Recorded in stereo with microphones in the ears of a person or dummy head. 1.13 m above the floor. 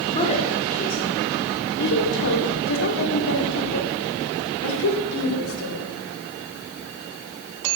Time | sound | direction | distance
0.1 | a woman speaking | 25° left (ahead or behind) | 3.5 m